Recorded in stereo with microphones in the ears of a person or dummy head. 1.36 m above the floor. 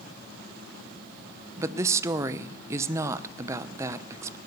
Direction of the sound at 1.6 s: 15° right (ahead or behind).